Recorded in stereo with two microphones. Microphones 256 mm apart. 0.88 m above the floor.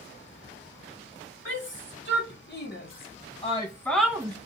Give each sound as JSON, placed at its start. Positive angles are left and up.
{"t": 1.4, "sound": "a shout", "side_deg": 50, "distance_m": 1.6}